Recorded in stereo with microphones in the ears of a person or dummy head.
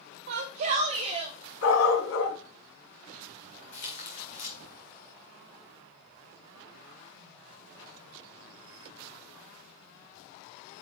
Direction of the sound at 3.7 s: 35° left (ahead or behind).